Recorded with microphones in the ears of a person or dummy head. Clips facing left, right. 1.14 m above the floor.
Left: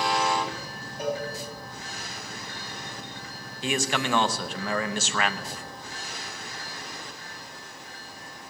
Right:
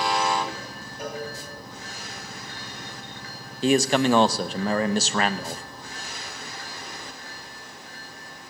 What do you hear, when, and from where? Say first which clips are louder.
1.0 s a cowbell: left 4 dB; 15° left (ahead or behind), 4.5 m
3.6 s a man speaking: right 9 dB; 35° right (ahead or behind), 0.6 m